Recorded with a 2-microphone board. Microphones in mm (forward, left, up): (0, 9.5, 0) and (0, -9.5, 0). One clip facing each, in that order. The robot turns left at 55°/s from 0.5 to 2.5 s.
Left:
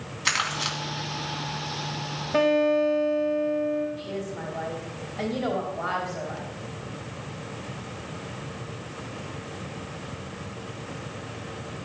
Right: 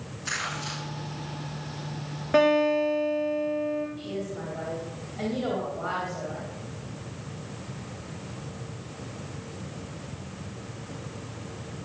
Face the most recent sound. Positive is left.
turn(degrees=15)  # may be behind; listen again after turning